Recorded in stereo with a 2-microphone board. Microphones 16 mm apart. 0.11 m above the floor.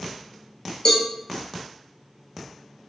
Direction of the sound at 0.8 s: 50° left (ahead or behind).